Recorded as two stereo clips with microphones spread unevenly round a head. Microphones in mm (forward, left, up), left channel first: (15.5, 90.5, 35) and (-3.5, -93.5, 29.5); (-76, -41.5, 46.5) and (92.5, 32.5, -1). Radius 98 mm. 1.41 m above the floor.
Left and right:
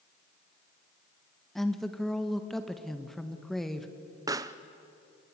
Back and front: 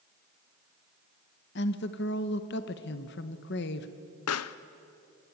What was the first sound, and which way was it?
A woman speaking, 170° left.